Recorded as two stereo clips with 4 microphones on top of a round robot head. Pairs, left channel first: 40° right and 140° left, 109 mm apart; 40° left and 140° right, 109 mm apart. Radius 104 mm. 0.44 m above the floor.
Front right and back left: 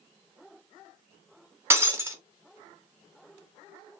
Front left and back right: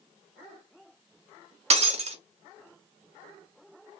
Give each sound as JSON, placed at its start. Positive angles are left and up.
{"t": 1.7, "sound": "breaking glass", "azimuth_deg": -150, "distance_m": 0.7}